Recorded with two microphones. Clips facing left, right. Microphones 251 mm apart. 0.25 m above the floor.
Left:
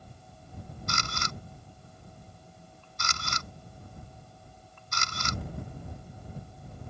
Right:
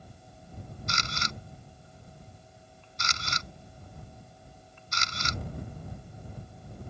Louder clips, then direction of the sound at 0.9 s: Left 1 dB; 55° left (ahead or behind).